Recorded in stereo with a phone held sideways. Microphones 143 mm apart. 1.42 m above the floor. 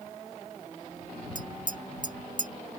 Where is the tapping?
65° right (ahead or behind).